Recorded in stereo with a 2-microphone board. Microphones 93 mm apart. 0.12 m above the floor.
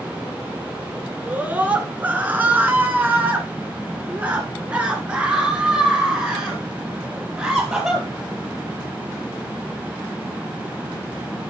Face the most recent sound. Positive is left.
turn(degrees=-5)  # may be behind; listen again after turning